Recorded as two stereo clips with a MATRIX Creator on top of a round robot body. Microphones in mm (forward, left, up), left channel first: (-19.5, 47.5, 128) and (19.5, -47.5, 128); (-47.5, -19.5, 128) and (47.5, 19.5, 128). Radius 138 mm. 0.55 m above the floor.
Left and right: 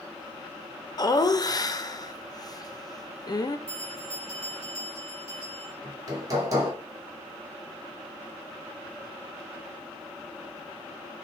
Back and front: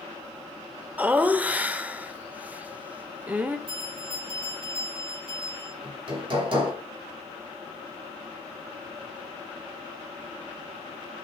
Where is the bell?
Straight ahead, 3 m.